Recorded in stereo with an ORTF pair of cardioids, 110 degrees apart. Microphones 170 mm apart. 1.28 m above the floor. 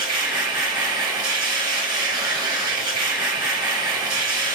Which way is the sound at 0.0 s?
30° right.